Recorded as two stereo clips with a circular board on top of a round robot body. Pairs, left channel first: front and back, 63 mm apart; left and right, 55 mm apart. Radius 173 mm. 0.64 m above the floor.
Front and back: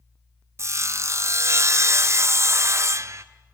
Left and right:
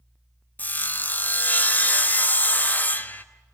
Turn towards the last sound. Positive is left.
turn(degrees=145)